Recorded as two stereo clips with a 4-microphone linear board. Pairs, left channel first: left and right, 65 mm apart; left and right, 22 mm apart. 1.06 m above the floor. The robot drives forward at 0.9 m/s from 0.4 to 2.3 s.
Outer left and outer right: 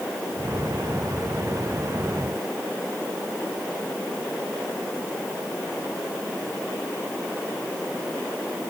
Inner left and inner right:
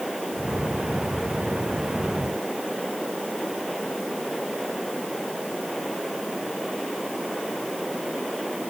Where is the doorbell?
No doorbell in this recording.